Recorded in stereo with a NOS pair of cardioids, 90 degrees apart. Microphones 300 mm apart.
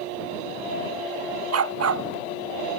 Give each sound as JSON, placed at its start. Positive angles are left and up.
{"t": 1.5, "sound": "a dog barking", "azimuth_deg": -55}